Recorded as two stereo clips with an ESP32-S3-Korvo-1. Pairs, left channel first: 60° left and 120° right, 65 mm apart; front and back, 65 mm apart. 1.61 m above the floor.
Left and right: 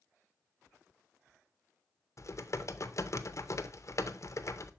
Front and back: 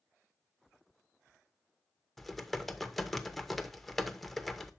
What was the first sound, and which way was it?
Typing on a keyboard, 85° left.